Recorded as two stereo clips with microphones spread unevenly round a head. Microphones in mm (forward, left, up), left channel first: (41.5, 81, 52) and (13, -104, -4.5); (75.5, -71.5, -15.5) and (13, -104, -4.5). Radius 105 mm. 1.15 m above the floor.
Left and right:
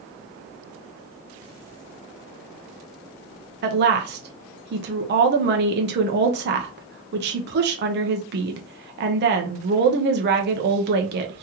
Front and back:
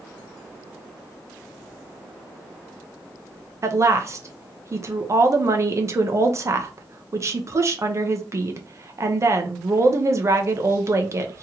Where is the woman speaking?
100° right, 0.8 m.